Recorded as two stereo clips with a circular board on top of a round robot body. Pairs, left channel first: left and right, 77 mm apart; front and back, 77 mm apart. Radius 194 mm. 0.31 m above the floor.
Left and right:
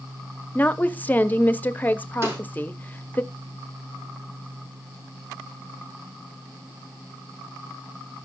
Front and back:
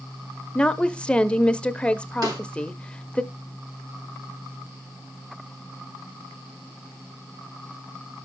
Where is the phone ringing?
No phone ringing in this recording.